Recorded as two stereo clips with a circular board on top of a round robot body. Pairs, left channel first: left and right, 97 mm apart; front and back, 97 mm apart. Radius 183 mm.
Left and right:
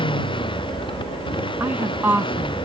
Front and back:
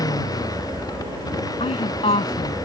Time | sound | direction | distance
0.0 | a motorcycle | 55° left | ?
1.6 | a woman speaking | 20° right | ?